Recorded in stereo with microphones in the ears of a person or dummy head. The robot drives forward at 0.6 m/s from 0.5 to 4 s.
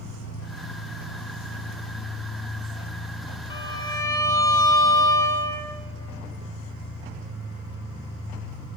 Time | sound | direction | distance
0.0 | an engine running | 60° left (ahead or behind) | 1.4 m
3.5 | a violin | 25° left (ahead or behind) | 1.2 m